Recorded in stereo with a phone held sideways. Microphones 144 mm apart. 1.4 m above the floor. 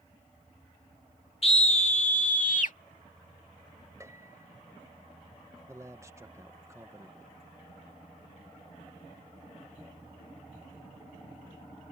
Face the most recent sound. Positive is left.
turn(degrees=-20)  # may be behind; listen again after turning